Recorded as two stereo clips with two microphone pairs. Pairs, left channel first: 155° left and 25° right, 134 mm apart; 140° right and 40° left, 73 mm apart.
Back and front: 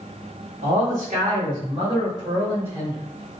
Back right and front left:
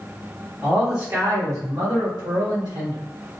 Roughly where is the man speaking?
Ahead right.